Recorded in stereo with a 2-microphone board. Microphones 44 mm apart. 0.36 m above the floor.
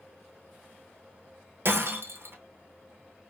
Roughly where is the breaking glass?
Right.